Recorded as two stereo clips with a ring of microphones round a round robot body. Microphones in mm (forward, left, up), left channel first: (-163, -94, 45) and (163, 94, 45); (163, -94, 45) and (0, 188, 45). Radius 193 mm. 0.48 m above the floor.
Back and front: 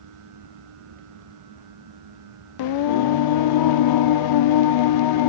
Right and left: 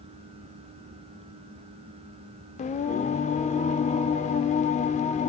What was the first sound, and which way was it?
Singing, 130° right.